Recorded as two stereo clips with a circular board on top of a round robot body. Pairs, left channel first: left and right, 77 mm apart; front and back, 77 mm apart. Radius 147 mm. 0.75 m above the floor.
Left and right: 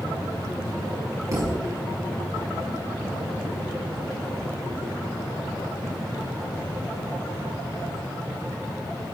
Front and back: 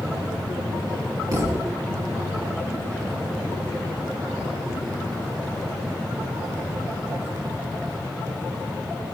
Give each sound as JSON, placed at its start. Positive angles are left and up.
{"t": 1.3, "sound": "a thud", "azimuth_deg": -140, "distance_m": 4.0}